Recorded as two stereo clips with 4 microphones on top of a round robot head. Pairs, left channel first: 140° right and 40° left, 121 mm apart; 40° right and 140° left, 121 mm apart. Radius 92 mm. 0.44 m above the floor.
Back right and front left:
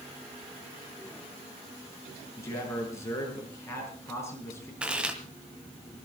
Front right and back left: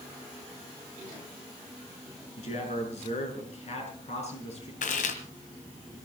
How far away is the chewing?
About 2 m.